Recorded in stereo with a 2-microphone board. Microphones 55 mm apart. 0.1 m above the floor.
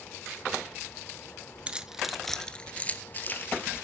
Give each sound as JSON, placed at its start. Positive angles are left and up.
{"t": 1.7, "sound": "keys jangling", "side_deg": -20, "distance_m": 0.8}